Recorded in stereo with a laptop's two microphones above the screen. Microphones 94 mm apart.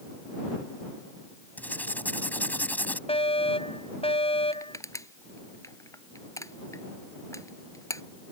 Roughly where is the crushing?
Left.